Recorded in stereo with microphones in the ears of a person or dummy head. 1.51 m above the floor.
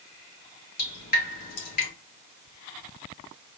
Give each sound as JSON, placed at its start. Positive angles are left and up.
{"t": 0.8, "sound": "dripping", "side_deg": 50, "distance_m": 1.5}